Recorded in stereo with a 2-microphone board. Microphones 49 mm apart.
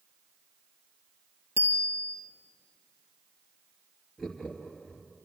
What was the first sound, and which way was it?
A bicycle bell, 65° right (ahead or behind).